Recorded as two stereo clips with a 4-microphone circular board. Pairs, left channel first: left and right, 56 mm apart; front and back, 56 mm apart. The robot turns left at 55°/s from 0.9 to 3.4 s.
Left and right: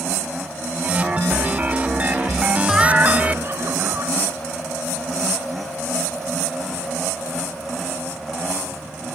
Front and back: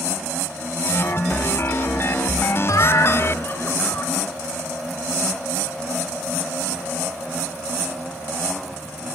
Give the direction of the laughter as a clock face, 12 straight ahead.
12 o'clock.